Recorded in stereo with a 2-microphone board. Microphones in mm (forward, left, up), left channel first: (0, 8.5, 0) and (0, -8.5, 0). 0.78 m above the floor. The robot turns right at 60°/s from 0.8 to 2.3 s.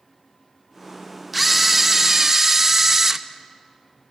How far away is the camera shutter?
About 0.6 m.